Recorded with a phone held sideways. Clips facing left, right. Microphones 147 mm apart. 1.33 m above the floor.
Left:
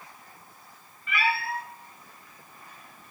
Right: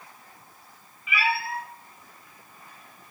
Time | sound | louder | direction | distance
1.1 | a cat meowing | right 1 dB | 5° right (ahead or behind) | 1.9 m